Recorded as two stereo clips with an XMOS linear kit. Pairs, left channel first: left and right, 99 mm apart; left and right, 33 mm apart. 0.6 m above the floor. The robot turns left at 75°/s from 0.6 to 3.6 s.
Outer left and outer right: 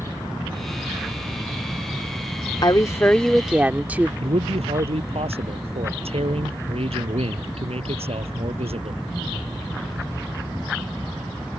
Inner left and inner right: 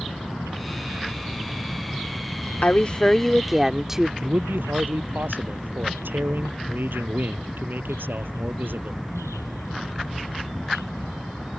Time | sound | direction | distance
2.6 | a woman speaking | 55° left | ?
4.2 | a man speaking | 85° right | ?